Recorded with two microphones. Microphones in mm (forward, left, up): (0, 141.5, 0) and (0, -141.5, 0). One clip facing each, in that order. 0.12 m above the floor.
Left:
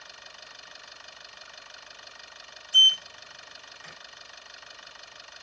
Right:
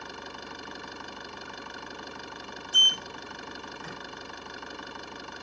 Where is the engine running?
70° right (ahead or behind).